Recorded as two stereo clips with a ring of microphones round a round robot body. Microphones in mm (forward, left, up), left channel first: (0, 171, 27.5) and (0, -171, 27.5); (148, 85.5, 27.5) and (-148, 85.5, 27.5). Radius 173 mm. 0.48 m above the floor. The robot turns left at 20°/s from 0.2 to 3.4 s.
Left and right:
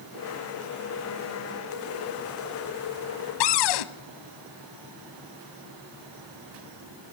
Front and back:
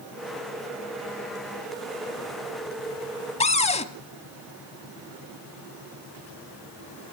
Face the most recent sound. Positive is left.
turn(degrees=70)